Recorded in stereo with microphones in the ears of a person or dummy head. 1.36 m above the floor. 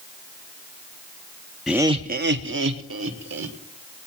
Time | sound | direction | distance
1.7 | laughter | 5° right (ahead or behind) | 0.5 m